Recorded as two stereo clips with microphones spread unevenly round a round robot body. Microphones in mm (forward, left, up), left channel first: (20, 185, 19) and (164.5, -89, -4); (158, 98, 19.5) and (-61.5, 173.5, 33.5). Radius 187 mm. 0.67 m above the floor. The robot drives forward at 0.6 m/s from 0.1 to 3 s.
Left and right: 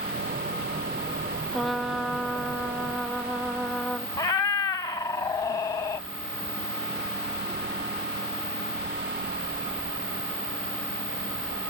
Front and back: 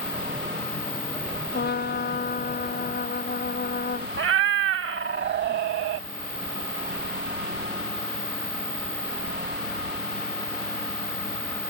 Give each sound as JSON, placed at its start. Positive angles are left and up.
{"t": 1.5, "sound": "a trumpet", "azimuth_deg": 30}
{"t": 4.2, "sound": "a cat meowing", "azimuth_deg": -170}